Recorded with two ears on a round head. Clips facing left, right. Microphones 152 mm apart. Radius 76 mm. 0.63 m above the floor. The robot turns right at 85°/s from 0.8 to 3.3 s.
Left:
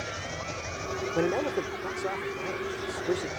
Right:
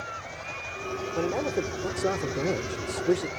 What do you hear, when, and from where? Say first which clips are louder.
0.0 s an engine running: left 3 dB; 155° left; by 3.4 s 5° left
1.1 s a man speaking: even; 160° left; by 3.3 s 15° right